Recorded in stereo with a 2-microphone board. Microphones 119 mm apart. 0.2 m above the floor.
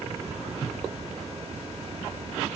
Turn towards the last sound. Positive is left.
turn(degrees=-65)  # may be behind; listen again after turning